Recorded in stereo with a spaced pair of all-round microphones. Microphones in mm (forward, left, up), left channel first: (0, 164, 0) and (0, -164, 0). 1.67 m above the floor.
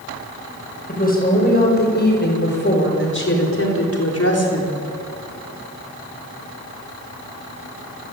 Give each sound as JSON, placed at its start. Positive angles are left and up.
{"t": 0.9, "sound": "a woman speaking", "side_deg": 25, "distance_m": 7.5}